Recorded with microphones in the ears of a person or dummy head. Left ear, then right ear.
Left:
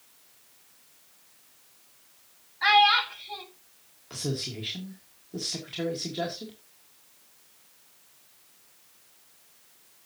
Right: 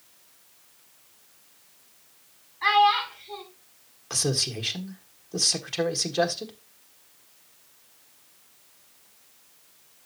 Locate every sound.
2.6 s a child speaking: 25° left (ahead or behind), 1.9 m
4.1 s a man speaking: 35° right (ahead or behind), 1.7 m